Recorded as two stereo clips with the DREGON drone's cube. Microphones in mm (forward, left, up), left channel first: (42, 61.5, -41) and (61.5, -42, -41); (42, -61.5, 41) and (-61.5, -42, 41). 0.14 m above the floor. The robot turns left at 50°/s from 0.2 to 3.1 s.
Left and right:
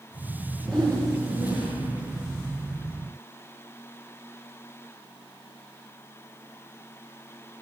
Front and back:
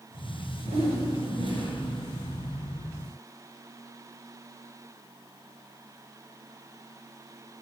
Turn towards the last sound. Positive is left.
turn(degrees=65)